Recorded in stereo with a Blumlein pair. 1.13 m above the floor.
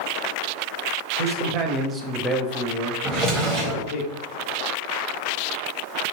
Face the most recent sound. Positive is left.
turn(degrees=-30)